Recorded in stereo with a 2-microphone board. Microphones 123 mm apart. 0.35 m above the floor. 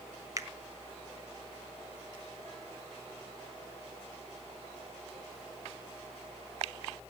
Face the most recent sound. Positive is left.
turn(degrees=-30)  # may be behind; listen again after turning